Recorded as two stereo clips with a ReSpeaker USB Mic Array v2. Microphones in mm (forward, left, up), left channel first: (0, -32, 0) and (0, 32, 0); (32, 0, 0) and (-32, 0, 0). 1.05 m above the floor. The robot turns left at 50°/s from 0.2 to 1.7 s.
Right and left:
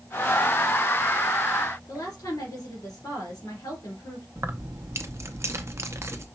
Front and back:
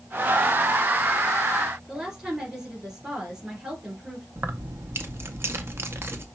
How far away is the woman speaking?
About 3 m.